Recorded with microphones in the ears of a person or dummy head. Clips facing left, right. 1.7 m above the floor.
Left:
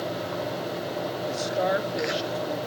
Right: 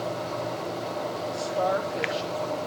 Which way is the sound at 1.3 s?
25° left (ahead or behind).